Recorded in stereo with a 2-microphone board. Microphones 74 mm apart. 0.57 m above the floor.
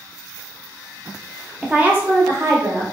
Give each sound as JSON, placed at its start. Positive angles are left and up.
{"t": 1.6, "sound": "a woman speaking", "side_deg": -10, "distance_m": 0.6}